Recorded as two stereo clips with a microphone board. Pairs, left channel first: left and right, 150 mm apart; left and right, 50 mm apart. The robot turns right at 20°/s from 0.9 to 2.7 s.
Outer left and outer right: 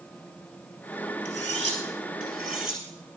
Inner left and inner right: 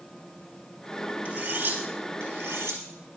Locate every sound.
1.2 s cutlery clinking: 45° right (ahead or behind), 4 m; by 3.2 s 70° right (ahead or behind), 4 m